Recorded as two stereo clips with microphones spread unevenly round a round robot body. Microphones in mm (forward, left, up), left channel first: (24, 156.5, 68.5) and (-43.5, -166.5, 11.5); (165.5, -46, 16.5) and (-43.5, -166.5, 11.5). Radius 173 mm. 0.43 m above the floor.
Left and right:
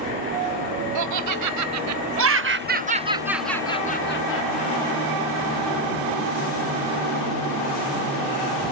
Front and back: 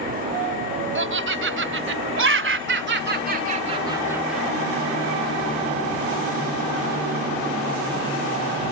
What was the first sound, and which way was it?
Laughter, 120° right.